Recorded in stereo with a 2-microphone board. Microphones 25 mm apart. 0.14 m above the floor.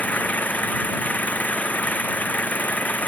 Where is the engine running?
80° left.